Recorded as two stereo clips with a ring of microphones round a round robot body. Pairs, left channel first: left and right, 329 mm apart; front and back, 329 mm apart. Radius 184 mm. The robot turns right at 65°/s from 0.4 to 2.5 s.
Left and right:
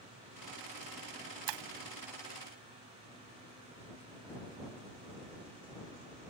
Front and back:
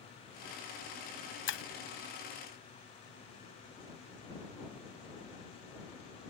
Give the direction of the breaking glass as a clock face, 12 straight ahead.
2 o'clock.